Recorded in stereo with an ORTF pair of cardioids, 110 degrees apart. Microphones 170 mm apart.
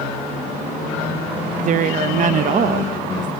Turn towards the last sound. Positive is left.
turn(degrees=-50)